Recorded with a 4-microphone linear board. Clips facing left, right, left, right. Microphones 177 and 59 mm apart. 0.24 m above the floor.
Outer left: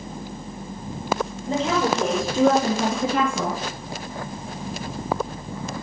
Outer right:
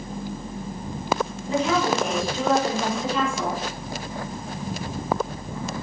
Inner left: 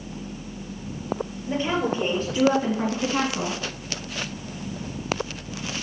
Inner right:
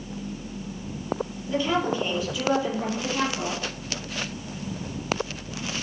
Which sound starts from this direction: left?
A woman speaking, at 1.5 s.